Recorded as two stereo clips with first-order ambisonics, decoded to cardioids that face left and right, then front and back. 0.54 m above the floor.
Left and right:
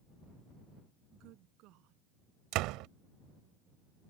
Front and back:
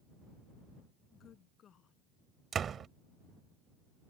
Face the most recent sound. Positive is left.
turn(degrees=-115)